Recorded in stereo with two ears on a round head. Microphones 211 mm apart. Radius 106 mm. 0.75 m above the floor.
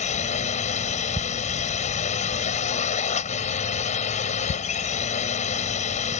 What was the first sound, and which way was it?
A drone, 30° left (ahead or behind).